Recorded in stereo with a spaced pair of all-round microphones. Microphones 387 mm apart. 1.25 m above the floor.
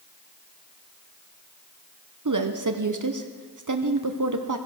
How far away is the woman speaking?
About 0.7 m.